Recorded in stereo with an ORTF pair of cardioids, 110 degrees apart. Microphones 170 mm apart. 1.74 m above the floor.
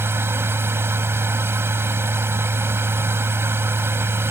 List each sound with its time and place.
0.0 s a machine running: 15° right